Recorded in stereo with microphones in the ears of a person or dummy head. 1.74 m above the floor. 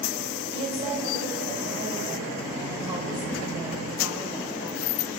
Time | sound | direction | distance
0.5 | a woman speaking | 35° right (ahead or behind) | 7 m